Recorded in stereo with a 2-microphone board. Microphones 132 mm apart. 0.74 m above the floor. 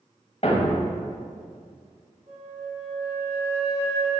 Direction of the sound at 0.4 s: 50° left (ahead or behind).